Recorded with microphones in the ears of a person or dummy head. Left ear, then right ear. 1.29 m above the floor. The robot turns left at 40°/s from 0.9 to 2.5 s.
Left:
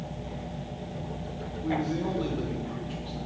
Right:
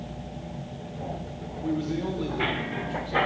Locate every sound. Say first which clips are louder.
1.6 s a man speaking: even; 155° right, 1.0 m; by 3.2 s 170° left, 1.0 m